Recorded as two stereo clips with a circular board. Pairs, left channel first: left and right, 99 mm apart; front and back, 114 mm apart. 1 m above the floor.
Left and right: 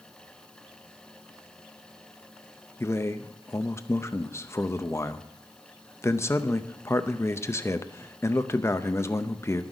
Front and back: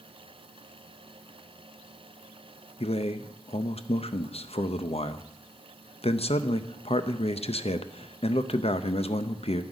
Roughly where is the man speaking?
Ahead left.